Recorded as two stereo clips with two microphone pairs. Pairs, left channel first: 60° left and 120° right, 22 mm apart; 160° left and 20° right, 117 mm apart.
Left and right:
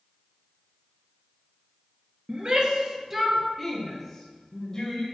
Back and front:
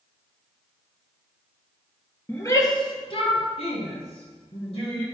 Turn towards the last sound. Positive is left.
turn(degrees=125)